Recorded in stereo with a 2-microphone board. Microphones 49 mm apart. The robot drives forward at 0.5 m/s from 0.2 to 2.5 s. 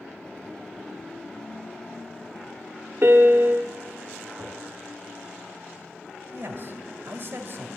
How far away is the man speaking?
About 2.5 m.